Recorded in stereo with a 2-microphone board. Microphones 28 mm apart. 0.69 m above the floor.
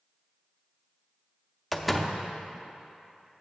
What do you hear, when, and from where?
1.7 s a door slam: 5° left (ahead or behind), 0.5 m